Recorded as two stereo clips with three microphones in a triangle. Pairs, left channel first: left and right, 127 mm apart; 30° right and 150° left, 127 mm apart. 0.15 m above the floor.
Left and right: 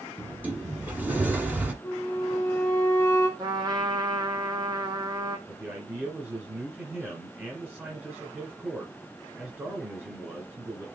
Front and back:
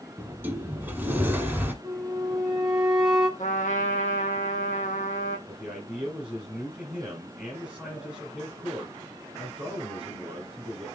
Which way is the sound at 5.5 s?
140° right.